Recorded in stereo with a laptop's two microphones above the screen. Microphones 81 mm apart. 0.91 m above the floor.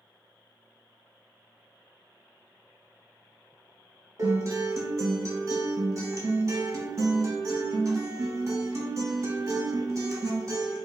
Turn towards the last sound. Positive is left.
turn(degrees=-40)  # may be behind; listen again after turning